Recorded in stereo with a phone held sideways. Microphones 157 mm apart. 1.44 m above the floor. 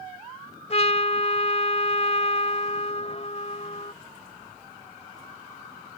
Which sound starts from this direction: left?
A trumpet, at 0.7 s.